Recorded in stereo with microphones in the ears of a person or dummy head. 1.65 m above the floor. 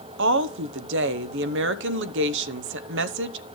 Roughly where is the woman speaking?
Right.